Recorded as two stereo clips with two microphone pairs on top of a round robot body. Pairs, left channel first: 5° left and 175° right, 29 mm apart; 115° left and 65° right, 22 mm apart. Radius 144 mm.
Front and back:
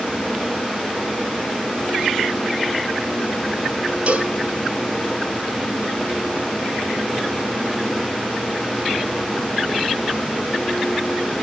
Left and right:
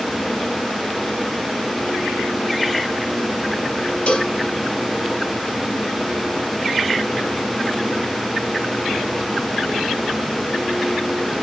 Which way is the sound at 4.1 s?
145° left.